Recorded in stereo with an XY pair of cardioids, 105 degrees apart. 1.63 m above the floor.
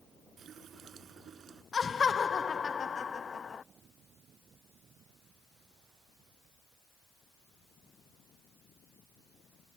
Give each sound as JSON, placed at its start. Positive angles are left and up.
{"t": 0.4, "sound": "a running tap", "azimuth_deg": -55}
{"t": 1.7, "sound": "laughter", "azimuth_deg": 35}